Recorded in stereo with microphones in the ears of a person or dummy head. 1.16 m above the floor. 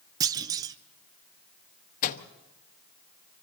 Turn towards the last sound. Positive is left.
turn(degrees=40)  # may be behind; listen again after turning